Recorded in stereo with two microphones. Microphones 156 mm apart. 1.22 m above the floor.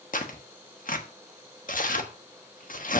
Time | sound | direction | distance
0.1 | tearing paper | 60° left (ahead or behind) | 1.2 m